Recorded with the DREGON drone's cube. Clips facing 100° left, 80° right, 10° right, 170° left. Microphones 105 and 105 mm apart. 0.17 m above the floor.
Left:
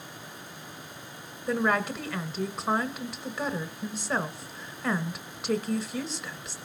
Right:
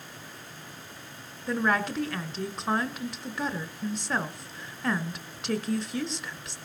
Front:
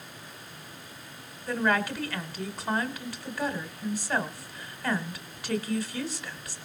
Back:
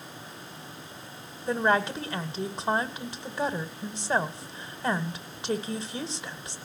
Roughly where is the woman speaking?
Behind.